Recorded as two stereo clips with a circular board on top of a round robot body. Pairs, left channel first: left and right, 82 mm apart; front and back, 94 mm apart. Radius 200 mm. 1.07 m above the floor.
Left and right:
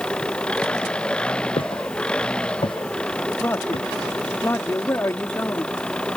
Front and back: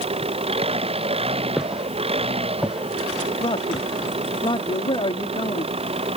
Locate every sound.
0.0 s an engine running: 170° left
1.6 s footsteps: 95° left
3.4 s a man speaking: 30° left